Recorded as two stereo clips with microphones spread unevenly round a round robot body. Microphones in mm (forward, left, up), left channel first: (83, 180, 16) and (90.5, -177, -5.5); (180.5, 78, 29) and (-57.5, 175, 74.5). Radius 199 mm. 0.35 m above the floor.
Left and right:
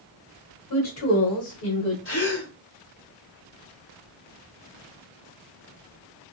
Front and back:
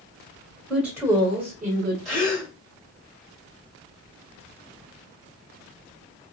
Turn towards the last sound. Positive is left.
turn(degrees=55)